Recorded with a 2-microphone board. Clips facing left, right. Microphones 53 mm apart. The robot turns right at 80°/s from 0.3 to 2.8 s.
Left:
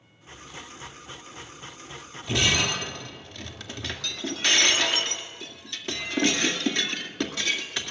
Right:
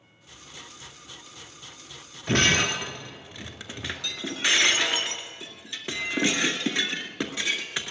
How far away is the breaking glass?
About 2.0 m.